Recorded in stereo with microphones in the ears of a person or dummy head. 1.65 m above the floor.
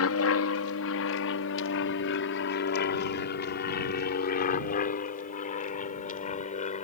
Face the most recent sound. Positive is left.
turn(degrees=35)  # may be behind; listen again after turning